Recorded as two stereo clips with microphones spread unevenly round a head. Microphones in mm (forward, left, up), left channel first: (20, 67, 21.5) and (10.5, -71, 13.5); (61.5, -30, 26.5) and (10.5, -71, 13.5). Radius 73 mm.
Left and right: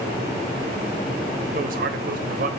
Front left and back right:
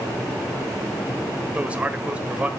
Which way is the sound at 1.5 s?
65° right.